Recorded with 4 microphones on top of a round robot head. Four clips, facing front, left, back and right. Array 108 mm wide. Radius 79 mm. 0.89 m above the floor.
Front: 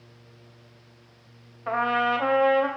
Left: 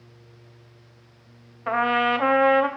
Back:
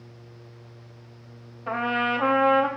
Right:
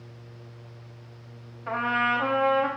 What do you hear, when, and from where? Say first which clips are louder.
1.7 s a trumpet: left 4 dB, front 2 dB; 90° left, 0.7 m